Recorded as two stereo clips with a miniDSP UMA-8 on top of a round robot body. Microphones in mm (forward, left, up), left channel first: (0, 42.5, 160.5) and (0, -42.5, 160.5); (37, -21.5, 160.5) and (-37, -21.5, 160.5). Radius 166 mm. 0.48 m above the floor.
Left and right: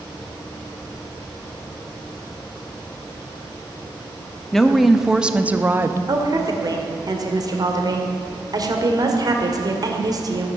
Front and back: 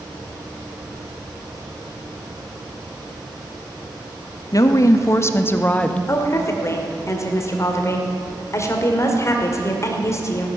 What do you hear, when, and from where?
4.5 s a woman speaking: 5° left, 1.2 m; by 6.0 s 65° right, 1.0 m
6.1 s a woman speaking: 50° right, 2 m